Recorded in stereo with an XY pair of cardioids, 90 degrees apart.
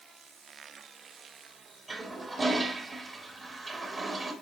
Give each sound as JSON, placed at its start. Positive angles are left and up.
{"t": 1.9, "sound": "a toilet flushing", "azimuth_deg": -35, "distance_m": 2.0}